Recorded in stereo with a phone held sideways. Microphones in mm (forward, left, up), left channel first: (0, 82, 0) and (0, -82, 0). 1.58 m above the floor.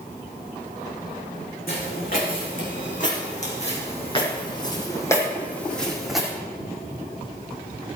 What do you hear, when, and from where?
1.7 s footsteps: 60° left (ahead or behind), 5.5 m; by 6.3 s 5° right (ahead or behind), 4 m